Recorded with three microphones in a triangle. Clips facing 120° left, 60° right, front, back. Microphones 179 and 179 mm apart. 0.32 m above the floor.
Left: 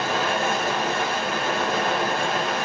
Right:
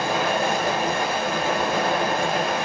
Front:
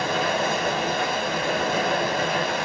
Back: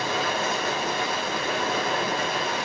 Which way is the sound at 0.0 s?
15° left.